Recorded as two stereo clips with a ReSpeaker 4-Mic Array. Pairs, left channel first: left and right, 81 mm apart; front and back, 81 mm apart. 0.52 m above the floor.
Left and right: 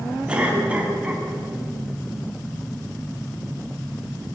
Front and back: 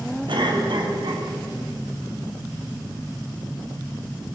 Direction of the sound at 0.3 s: 165° right.